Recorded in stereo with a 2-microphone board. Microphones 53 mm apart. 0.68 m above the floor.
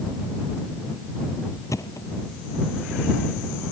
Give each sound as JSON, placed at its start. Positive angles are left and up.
{"t": 1.7, "sound": "a thud", "side_deg": 90}